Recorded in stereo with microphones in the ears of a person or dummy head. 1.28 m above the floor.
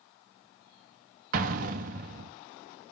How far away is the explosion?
About 0.6 m.